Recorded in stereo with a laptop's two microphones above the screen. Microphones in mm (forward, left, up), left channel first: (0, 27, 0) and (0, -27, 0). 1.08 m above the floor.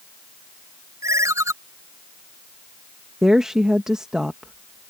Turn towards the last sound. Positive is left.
turn(degrees=-10)  # may be behind; listen again after turning